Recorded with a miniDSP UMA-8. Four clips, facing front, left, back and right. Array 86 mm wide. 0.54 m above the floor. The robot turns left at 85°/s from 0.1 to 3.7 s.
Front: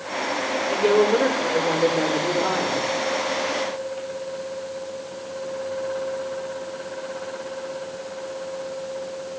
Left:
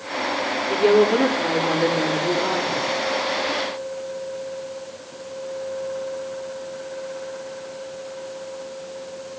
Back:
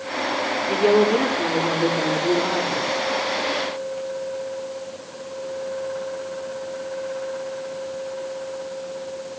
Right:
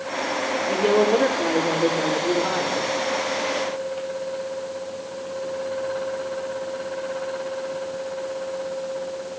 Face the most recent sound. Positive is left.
turn(degrees=-90)